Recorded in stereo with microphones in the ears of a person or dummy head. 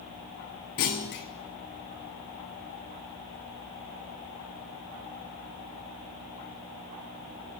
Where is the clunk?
45° left (ahead or behind), 0.6 m.